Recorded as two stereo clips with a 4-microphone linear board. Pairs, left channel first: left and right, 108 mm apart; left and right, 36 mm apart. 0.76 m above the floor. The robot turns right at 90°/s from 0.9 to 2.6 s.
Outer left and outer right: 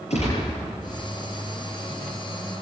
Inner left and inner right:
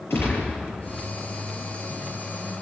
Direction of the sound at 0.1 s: 70° left (ahead or behind).